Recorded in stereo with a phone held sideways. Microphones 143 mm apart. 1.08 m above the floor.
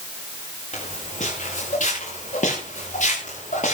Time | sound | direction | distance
0.7 | footsteps | 65° left (ahead or behind) | 7 m